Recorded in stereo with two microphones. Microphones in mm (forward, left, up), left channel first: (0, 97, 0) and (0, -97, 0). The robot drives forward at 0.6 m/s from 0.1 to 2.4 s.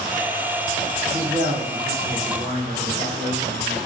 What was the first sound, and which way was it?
A man speaking, 55° right (ahead or behind).